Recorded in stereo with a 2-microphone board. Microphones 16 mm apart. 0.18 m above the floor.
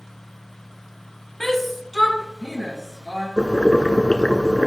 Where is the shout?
25° left (ahead or behind), 1.6 m; by 3.3 s 5° left (ahead or behind), 3.5 m.